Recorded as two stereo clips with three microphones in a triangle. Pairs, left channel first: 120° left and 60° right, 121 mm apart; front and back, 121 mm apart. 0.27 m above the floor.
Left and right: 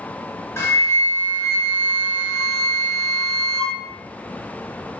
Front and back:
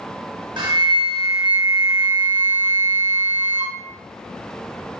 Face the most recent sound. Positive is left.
turn(degrees=175)